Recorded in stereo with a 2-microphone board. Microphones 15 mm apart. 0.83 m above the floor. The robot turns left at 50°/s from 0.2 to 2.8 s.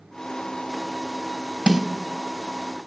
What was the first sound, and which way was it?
A snare drum, 40° right (ahead or behind).